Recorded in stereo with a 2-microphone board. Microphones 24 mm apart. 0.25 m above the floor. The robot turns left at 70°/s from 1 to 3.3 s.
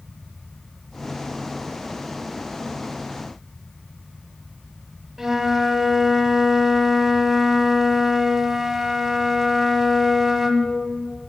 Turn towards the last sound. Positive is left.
turn(degrees=-15)  # may be behind; listen again after turning